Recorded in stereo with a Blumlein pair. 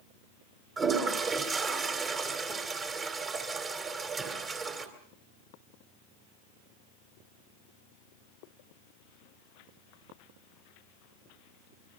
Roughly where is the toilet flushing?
Ahead.